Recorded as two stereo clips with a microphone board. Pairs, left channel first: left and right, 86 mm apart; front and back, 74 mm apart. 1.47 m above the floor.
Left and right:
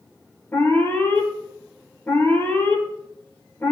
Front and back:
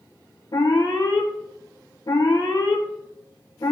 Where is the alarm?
25° left, 4 m.